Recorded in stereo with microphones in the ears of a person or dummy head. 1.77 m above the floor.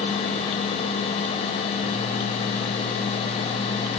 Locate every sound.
Only background noise.